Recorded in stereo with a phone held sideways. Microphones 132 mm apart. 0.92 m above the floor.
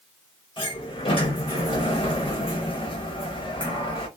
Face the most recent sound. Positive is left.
turn(degrees=40)  # may be behind; listen again after turning